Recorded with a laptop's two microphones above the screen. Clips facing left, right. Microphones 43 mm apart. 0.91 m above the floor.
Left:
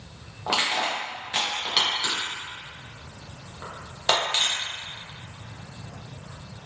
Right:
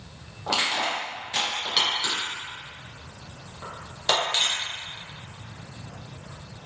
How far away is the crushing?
About 1.0 m.